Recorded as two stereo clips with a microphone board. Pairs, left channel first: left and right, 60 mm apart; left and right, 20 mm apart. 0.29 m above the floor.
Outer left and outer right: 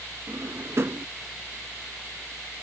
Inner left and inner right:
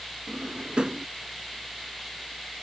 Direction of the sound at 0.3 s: 50° right (ahead or behind).